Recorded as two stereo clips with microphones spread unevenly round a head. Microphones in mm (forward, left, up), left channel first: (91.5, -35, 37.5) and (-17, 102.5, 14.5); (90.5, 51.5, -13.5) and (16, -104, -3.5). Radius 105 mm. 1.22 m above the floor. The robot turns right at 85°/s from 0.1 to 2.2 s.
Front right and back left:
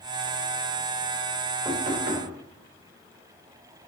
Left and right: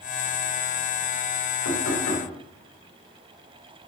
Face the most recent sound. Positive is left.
turn(degrees=105)